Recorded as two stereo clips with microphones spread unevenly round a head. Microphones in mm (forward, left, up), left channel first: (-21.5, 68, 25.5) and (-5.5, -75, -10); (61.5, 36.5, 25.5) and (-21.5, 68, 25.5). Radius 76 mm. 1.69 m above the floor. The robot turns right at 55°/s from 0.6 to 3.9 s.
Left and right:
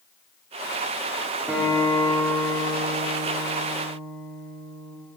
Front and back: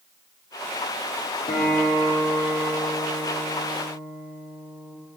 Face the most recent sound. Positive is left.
turn(degrees=135)